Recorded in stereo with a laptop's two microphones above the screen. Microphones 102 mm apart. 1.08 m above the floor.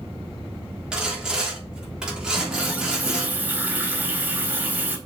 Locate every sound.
0.9 s sawing: 10° right (ahead or behind), 3.5 m
2.3 s a running tap: 15° right (ahead or behind), 4 m